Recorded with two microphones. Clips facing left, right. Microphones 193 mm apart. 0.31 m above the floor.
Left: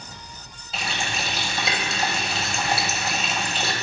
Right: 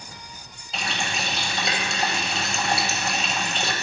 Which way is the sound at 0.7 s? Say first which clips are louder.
Even; centre (ahead or behind).